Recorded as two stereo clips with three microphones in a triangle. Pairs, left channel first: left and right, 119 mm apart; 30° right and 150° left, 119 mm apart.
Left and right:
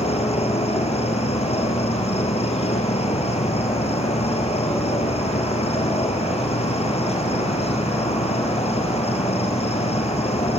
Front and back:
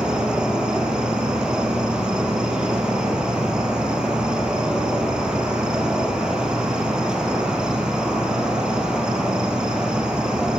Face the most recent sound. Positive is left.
turn(degrees=65)